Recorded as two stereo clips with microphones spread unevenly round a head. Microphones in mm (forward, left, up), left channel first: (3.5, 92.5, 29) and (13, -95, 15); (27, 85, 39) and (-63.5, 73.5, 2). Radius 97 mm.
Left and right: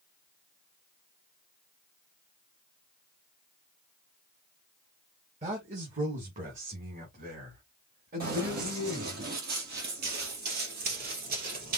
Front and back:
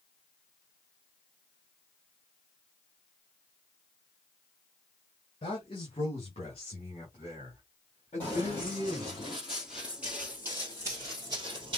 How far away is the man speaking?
About 1.7 m.